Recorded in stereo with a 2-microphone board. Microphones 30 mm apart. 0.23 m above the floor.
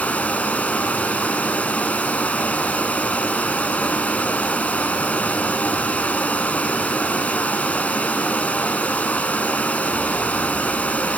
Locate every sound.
0.0 s running water: 60° left (ahead or behind), 1.1 m